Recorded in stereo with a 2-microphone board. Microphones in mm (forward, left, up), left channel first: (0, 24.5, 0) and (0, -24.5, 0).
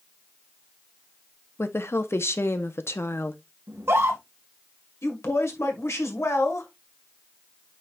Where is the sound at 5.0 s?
65° left (ahead or behind), 1.9 m.